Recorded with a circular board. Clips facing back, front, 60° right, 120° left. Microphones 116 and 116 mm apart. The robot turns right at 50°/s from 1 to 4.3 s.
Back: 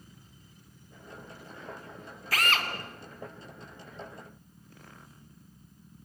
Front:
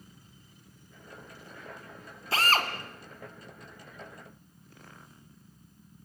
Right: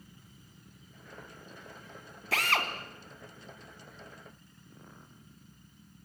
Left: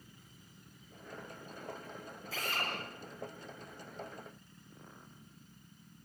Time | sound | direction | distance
2.3 | a drill | 65° right | 2.5 m